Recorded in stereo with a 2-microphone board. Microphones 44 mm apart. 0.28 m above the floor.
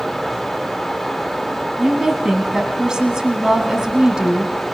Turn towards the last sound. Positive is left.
turn(degrees=-15)  # may be behind; listen again after turning